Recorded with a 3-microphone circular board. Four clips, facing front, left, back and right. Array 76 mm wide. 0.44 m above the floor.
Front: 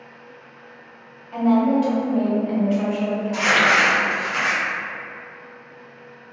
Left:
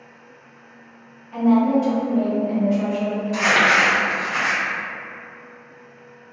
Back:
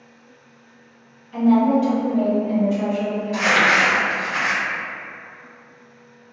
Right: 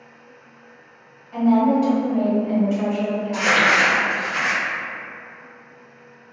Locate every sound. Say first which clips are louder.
1.3 s a woman speaking: even, back 1 dB; 10° left, 1.6 m; by 3.8 s 65° right, 1.0 m
3.3 s crumpling: left 1 dB, back 1 dB; 115° left, 1.2 m